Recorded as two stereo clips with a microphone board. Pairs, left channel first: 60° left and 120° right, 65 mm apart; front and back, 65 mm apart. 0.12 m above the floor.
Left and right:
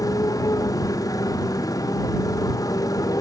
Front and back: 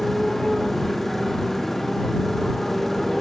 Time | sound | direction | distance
0.0 | a motorcycle | 85° left | ?